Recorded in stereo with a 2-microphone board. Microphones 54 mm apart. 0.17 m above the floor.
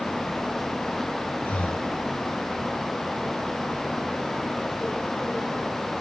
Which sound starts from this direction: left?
Breathing, at 1.4 s.